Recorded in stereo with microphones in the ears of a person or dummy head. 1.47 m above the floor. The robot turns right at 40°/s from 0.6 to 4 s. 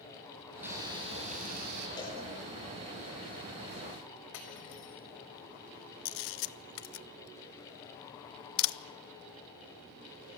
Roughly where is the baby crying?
No baby crying in this recording.